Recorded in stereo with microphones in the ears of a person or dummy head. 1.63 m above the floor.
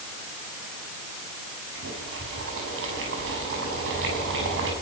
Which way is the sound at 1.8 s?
70° right (ahead or behind).